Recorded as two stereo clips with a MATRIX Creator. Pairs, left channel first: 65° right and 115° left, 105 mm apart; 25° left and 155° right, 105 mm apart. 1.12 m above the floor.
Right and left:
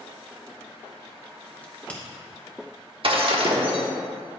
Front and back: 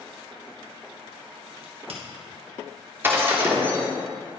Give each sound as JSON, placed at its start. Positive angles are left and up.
{"t": 1.6, "sound": "a crack", "azimuth_deg": -145, "distance_m": 1.6}
{"t": 3.0, "sound": "breaking glass", "azimuth_deg": 135, "distance_m": 1.2}